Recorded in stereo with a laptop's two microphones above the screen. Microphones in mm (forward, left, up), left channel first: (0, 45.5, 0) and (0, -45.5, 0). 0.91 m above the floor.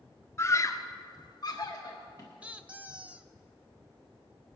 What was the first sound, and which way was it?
A scream, 30° left (ahead or behind).